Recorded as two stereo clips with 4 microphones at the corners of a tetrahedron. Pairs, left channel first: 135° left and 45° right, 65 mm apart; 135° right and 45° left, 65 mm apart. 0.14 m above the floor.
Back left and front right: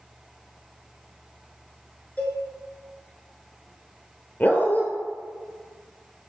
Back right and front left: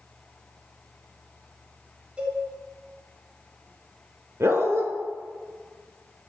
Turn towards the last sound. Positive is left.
turn(degrees=75)